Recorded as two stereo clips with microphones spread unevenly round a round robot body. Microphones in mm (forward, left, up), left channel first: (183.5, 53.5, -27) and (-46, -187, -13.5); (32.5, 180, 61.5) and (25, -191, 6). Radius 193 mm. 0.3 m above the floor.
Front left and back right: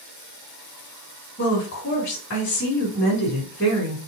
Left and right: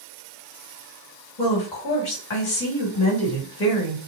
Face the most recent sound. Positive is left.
turn(degrees=100)